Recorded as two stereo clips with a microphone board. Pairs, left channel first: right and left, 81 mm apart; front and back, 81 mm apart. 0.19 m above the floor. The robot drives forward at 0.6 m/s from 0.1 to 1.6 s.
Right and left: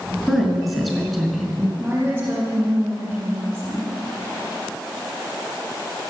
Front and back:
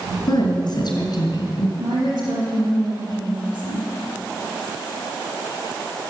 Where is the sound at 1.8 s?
155° left, 5.5 m.